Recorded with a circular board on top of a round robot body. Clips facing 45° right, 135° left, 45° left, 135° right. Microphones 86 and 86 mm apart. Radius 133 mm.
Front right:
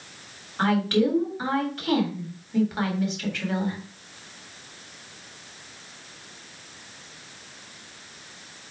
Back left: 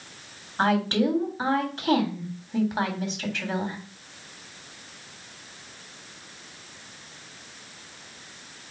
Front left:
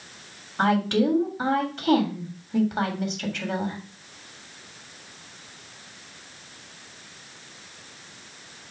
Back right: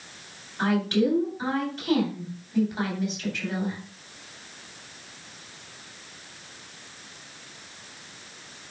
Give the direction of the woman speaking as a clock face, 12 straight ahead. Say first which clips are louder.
Front right 1 dB, front left 2 dB; 10 o'clock.